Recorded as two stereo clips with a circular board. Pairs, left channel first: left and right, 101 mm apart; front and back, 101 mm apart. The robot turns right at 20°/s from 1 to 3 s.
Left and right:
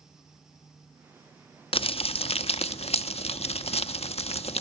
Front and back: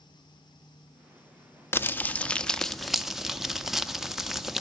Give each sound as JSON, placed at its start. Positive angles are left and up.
{"t": 1.7, "sound": "crumpling", "azimuth_deg": 70, "distance_m": 0.6}